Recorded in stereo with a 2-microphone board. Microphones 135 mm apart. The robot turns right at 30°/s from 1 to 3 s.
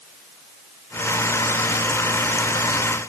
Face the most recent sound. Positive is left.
No sound to turn to.